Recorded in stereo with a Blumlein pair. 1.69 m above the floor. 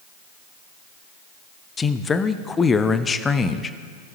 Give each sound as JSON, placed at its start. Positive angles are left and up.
{"t": 1.8, "sound": "a man speaking", "azimuth_deg": 15, "distance_m": 0.6}